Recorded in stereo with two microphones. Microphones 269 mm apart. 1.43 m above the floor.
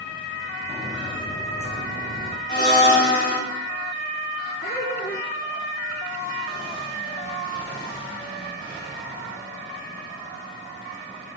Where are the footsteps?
25° left (ahead or behind), 3.5 m; by 2.4 s 50° left (ahead or behind), 4 m.